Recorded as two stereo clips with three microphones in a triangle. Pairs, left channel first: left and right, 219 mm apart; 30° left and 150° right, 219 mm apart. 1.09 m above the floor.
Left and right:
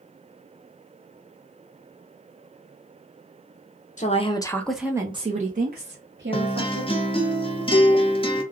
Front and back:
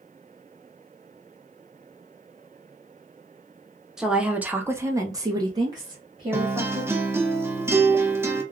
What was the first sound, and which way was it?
A woman speaking, 125° left.